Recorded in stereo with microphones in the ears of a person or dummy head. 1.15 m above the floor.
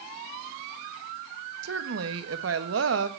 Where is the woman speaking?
75° right (ahead or behind), 1.5 m.